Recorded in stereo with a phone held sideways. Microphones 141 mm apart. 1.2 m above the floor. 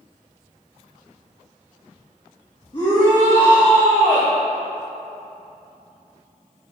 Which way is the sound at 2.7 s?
35° left (ahead or behind).